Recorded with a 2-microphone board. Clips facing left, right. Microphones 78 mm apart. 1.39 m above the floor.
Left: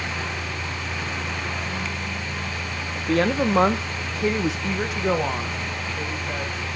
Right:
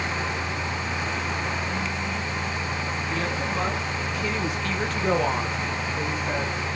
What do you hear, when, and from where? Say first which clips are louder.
3.0 s a woman speaking: left 12 dB; 65° left (ahead or behind), 1.3 m; by 6.5 s 25° right (ahead or behind), 1.8 m